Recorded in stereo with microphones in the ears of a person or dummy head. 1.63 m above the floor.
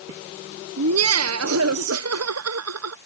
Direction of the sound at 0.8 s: 85° right.